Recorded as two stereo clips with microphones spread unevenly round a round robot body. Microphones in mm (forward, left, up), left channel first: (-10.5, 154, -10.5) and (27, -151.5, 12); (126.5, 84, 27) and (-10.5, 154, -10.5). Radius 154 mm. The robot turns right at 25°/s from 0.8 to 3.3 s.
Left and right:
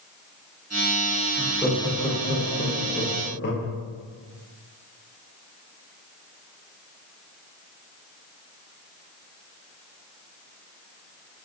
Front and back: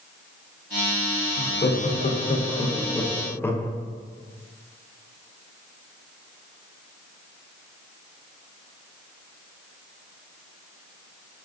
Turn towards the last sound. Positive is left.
turn(degrees=60)